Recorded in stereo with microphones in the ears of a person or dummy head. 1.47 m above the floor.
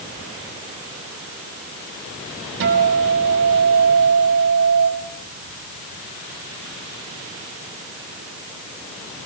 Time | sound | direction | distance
2.6 | a guitar | 70° right (ahead or behind) | 4.5 m